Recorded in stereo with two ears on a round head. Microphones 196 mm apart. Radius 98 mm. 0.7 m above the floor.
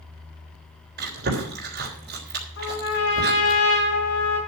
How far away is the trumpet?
About 6.5 m.